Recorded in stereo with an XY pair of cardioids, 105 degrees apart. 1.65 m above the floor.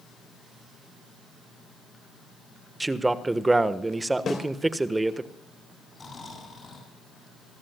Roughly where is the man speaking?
Ahead.